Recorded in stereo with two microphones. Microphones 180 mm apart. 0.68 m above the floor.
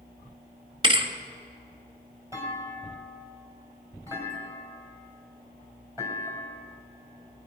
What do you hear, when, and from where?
0.8 s a thud: 30° right (ahead or behind), 1.4 m
2.3 s a clunk: 15° right (ahead or behind), 3.5 m